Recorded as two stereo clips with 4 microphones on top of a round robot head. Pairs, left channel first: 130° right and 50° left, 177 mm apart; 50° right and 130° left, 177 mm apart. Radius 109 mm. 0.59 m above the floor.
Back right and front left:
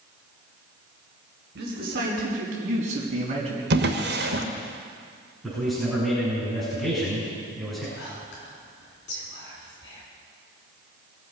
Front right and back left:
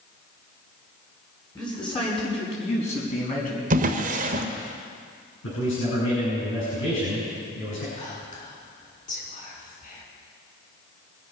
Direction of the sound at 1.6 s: 15° left.